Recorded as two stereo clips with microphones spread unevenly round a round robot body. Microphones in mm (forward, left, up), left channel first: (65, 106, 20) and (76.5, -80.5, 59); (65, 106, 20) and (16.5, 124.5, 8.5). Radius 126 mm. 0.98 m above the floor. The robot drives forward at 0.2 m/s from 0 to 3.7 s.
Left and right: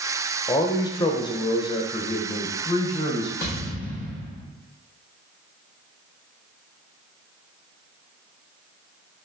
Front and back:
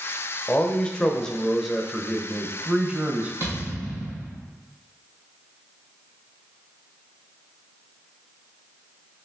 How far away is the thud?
About 1.6 m.